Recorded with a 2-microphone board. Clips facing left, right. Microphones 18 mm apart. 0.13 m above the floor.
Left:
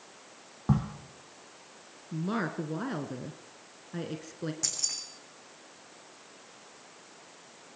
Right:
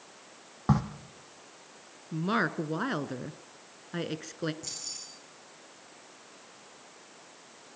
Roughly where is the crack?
Right.